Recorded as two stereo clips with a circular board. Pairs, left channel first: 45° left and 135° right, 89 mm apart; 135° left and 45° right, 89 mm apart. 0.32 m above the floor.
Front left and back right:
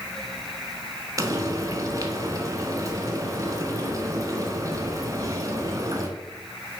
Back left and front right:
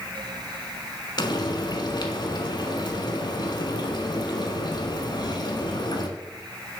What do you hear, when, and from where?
1.2 s frying: 175° left, 1.1 m